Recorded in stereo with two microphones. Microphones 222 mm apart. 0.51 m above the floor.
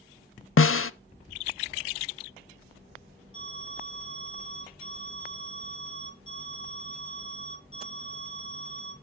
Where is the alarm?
30° right (ahead or behind), 9 m.